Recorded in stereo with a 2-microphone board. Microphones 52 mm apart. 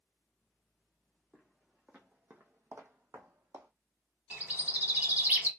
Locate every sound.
1.3 s footsteps: 5° right (ahead or behind), 0.9 m; by 3.7 s 70° right (ahead or behind), 0.8 m
4.3 s a bird: 30° right (ahead or behind), 1.1 m